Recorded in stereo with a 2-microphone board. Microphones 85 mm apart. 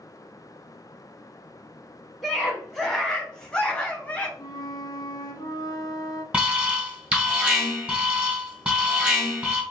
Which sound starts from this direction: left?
A flute, at 4.4 s.